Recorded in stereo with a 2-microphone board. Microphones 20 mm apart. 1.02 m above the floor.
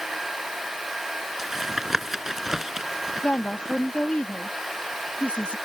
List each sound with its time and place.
1.4 s tapping: 20° right (ahead or behind)
3.2 s a woman speaking: 70° left (ahead or behind)